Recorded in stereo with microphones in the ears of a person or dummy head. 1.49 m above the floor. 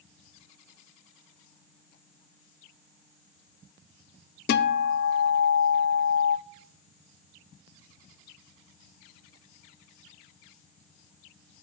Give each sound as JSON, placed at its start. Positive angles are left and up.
{"t": 4.5, "sound": "a guitar", "side_deg": 60, "distance_m": 0.7}